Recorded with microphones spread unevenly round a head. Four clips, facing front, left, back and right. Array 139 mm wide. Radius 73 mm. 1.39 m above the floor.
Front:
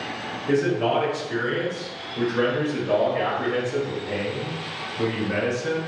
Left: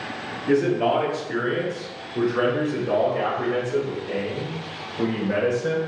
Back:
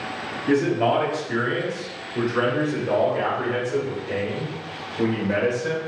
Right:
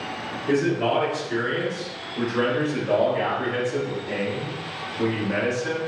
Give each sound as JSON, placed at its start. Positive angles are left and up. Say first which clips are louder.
{"t": 0.5, "sound": "a man speaking", "louder": "left 2 dB, back 2 dB", "azimuth_deg": 150, "distance_m": 2.5}